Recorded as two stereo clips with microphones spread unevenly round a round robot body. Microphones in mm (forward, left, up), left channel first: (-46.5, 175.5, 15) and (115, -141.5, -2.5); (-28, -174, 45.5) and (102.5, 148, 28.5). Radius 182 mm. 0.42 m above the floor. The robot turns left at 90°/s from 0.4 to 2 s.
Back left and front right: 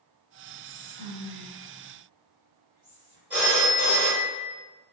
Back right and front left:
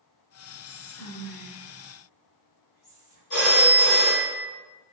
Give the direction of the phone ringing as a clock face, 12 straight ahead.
5 o'clock.